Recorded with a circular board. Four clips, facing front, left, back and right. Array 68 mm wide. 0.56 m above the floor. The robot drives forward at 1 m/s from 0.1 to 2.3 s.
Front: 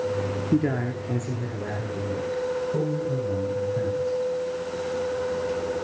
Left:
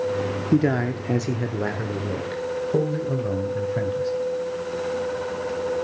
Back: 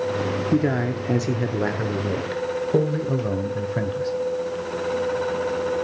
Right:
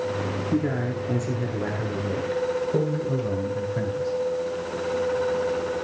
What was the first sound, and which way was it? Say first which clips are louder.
A man speaking: left 6 dB, back 2 dB; 100° left.